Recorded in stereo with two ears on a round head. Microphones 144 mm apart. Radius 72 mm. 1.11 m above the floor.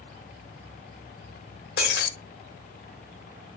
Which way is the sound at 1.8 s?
70° left (ahead or behind).